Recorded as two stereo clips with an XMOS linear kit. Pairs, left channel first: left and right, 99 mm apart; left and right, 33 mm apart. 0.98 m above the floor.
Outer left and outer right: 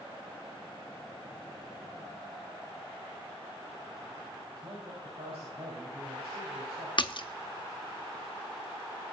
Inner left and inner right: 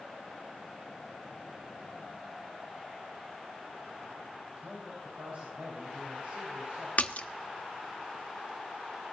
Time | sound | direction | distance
4.6 | a man speaking | 80° right | 5 m
7.0 | a splash | 50° left (ahead or behind) | 0.6 m